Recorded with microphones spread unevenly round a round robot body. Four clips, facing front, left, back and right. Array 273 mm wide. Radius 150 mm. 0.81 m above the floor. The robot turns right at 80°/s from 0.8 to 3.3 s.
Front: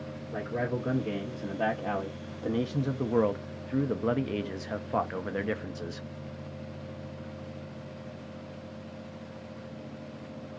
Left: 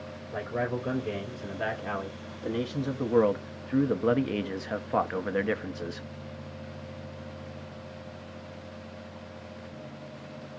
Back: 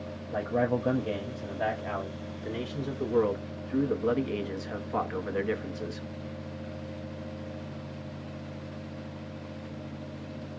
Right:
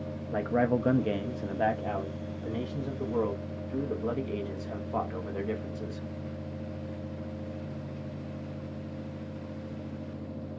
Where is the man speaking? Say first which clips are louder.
Right 4 dB, back 5 dB; 120° right, 0.8 m; by 6.1 s 80° left, 0.8 m.